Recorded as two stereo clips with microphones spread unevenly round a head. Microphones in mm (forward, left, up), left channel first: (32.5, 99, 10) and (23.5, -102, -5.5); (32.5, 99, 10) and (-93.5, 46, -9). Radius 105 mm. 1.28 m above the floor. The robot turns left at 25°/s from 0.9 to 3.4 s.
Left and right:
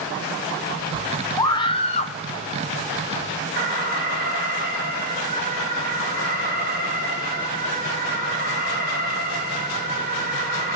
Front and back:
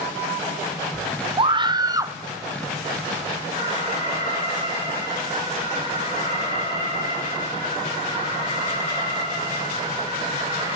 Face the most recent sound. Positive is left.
turn(degrees=-50)